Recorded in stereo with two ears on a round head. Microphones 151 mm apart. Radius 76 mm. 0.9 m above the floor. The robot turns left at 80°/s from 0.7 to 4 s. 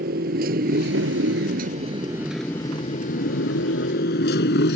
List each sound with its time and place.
0.0 s a motorcycle: 55° right (ahead or behind); by 4.8 s 65° left (ahead or behind)